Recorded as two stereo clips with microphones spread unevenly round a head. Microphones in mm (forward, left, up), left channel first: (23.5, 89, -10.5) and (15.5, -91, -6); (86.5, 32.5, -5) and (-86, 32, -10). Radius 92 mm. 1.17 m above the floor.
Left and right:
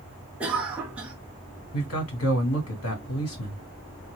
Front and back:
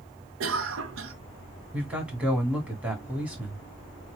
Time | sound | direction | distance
0.4 | a cough | 175° right | 0.7 m
1.7 | a man speaking | 95° left | 2.5 m